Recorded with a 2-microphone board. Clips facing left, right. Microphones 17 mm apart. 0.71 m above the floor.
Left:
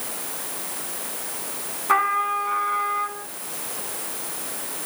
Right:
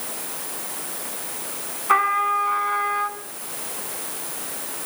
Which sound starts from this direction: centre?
A trumpet, at 1.9 s.